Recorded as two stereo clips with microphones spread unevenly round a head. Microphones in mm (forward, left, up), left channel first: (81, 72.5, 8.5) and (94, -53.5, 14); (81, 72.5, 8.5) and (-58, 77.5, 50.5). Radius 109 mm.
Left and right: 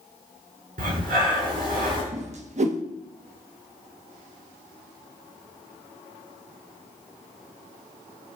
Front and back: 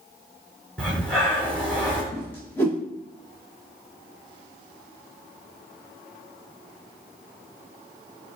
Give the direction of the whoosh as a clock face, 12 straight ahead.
2 o'clock.